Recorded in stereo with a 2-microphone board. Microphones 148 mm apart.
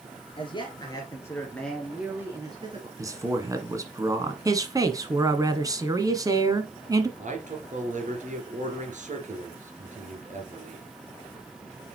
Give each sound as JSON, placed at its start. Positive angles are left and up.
{"t": 0.4, "sound": "a man speaking", "side_deg": 35, "distance_m": 2.5}
{"t": 3.0, "sound": "a man speaking", "side_deg": -20, "distance_m": 1.4}
{"t": 4.5, "sound": "a man speaking", "side_deg": -25, "distance_m": 1.1}
{"t": 7.2, "sound": "a man speaking", "side_deg": -60, "distance_m": 3.0}